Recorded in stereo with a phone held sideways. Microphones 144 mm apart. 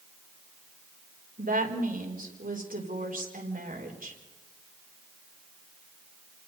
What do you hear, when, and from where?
1.4 s a woman speaking: 75° right (ahead or behind), 3.5 m